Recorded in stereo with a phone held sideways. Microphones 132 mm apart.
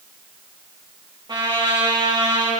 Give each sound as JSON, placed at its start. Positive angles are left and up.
{"t": 1.3, "sound": "a trumpet", "side_deg": -35, "distance_m": 8.5}